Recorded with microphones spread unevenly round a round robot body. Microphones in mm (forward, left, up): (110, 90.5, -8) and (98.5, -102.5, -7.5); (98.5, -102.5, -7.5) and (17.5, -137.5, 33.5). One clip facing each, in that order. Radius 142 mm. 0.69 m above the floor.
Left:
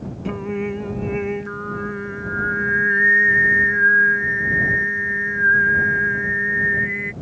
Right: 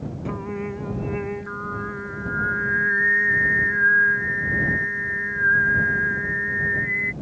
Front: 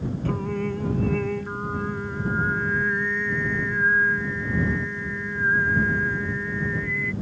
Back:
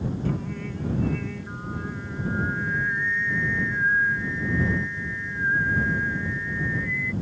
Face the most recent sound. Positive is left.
turn(degrees=25)